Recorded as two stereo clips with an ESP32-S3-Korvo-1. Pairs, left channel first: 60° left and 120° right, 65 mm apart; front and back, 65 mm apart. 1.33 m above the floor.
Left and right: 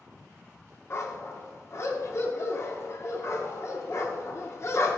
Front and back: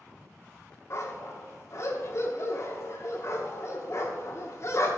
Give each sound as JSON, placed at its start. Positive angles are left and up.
{"t": 0.9, "sound": "a dog barking", "azimuth_deg": 25, "distance_m": 1.3}